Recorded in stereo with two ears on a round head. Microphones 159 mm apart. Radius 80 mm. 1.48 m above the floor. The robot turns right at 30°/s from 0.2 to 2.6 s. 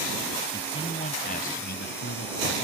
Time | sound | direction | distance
0.5 | a man speaking | 20° left | ?